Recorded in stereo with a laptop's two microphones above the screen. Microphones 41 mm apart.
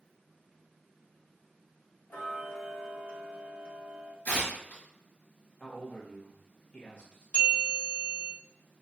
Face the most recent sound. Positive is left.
turn(degrees=30)  # may be behind; listen again after turning